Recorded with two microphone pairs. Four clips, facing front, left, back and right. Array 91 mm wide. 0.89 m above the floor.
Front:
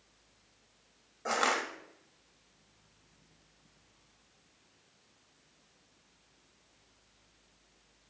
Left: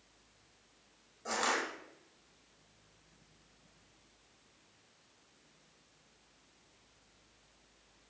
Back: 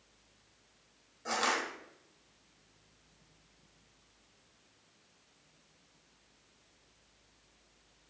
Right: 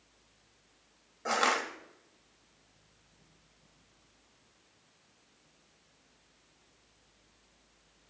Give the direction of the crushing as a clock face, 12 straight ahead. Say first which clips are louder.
Right 5 dB, front 2 dB; 2 o'clock.